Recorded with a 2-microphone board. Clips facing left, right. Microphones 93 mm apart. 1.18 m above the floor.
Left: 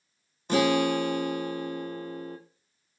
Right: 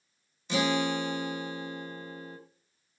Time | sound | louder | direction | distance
0.5 | a guitar | left 5 dB | 50° left (ahead or behind) | 1.1 m